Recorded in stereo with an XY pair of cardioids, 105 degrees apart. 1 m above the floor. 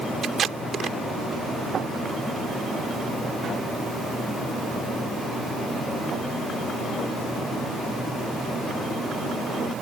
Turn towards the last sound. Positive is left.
turn(degrees=-50)